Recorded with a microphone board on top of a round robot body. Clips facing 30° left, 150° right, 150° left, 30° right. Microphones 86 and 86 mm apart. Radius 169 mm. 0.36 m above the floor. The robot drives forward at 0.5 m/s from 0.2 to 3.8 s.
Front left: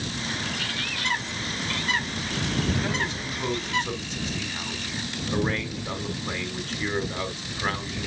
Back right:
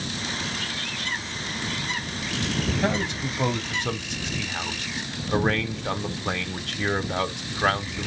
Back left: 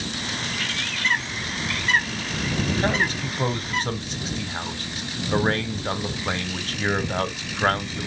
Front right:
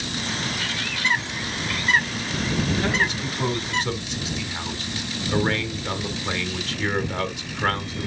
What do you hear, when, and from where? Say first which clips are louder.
0.4 s a bird: even, front right 1 dB; 50° left, 5.5 m; by 3.8 s 65° left, 4.5 m
2.8 s a man speaking: back right 3 dB, even; 160° right, 2.5 m; by 8.1 s 165° right, 3 m